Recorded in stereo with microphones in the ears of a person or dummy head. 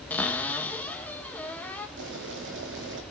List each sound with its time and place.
0.1 s a cupboard door: 10° left (ahead or behind), 1.1 m
2.0 s boiling: 60° right (ahead or behind), 2.5 m